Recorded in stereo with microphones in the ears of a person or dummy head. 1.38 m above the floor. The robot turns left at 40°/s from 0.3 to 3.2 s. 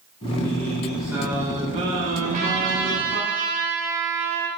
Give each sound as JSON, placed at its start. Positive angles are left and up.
{"t": 0.2, "sound": "singing", "azimuth_deg": 20, "distance_m": 6.5}
{"t": 2.2, "sound": "a trumpet", "azimuth_deg": -35, "distance_m": 4.0}